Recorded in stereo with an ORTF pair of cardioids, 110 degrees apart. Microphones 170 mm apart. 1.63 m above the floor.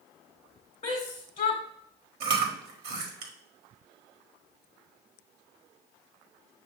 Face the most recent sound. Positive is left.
turn(degrees=-70)